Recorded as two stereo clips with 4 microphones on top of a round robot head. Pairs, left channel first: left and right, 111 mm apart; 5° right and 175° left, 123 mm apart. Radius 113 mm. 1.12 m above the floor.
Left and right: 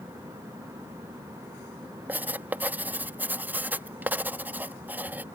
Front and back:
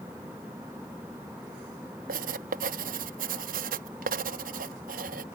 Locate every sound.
2.1 s writing: 165° right